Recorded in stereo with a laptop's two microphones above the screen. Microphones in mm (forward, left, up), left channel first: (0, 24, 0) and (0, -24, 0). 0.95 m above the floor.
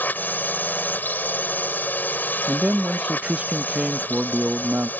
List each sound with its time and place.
0.0 s a drone: 40° left (ahead or behind)
2.5 s a man speaking: 20° right (ahead or behind)